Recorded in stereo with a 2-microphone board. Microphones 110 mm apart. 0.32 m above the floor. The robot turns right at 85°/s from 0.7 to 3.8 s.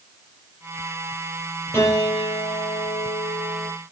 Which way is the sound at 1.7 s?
20° left.